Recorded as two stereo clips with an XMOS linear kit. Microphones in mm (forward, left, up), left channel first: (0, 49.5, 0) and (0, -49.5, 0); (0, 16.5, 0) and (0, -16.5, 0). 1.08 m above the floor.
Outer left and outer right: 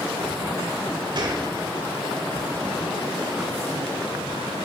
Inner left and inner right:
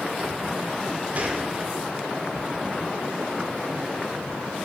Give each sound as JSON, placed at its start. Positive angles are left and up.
{"t": 1.1, "sound": "a gunshot", "side_deg": -50, "distance_m": 1.6}